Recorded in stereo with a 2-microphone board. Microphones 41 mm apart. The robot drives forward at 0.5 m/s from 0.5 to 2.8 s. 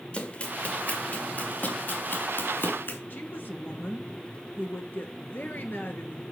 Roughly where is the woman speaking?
Left.